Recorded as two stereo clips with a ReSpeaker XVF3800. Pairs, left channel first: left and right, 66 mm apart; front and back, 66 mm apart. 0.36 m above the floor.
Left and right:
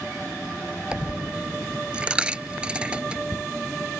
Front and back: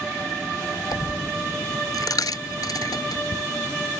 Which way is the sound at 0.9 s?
15° right.